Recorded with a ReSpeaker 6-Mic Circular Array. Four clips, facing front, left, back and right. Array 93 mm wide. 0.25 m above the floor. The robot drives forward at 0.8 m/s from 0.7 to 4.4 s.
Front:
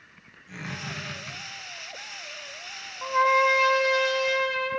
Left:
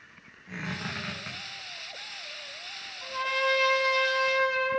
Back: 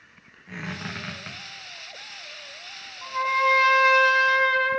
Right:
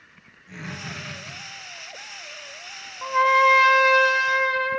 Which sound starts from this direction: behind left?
A squeak, at 0.5 s.